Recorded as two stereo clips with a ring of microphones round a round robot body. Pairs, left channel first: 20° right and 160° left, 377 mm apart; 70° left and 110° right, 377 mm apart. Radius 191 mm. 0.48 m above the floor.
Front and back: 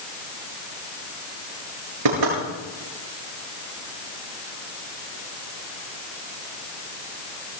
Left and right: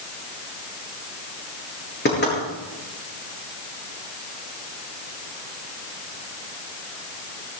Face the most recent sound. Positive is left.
turn(degrees=130)